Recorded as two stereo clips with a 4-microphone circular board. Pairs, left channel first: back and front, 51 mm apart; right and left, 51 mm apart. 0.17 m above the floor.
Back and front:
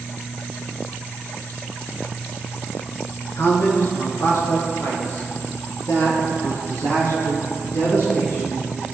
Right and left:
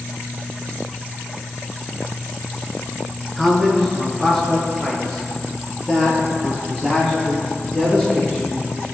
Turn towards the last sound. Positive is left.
turn(degrees=-170)